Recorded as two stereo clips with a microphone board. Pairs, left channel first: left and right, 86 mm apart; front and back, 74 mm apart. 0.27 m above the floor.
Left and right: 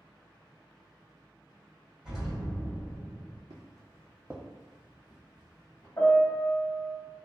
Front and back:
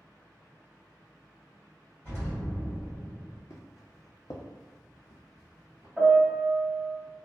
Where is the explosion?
Straight ahead, 1.4 m.